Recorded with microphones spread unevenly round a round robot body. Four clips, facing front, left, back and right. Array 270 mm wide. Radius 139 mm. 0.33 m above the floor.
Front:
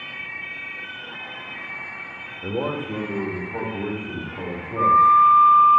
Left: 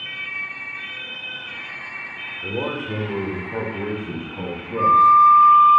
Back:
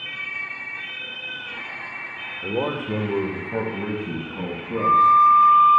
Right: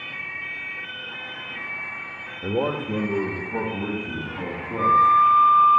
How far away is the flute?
About 0.7 m.